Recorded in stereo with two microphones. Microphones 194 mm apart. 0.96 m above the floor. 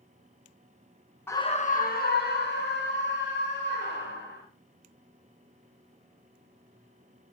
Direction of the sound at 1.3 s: 10° left (ahead or behind).